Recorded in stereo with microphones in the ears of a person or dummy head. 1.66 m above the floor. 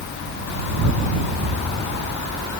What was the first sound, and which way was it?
An explosion, 70° right (ahead or behind).